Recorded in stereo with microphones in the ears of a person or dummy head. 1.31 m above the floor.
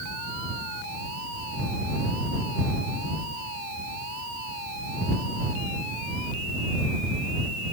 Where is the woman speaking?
I don't hear a woman speaking.